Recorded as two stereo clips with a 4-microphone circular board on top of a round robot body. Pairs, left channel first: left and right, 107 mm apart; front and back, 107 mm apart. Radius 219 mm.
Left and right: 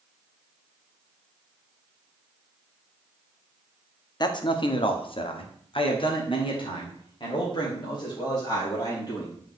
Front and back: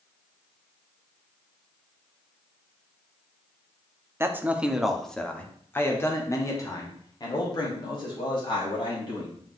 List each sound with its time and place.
4.2 s a man speaking: 120° left, 1.1 m; by 9.3 s 40° left, 3.5 m